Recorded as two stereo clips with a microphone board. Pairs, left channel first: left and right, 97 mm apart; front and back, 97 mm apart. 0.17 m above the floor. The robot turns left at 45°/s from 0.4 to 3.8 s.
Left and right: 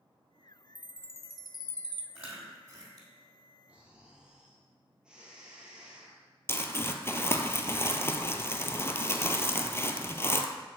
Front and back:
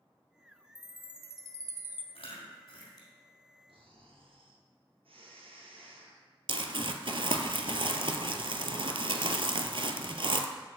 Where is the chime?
160° left, 0.6 m; by 2.0 s 105° left, 0.6 m.